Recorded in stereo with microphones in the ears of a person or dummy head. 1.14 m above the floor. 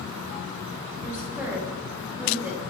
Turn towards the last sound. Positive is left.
turn(degrees=-5)  # may be behind; listen again after turning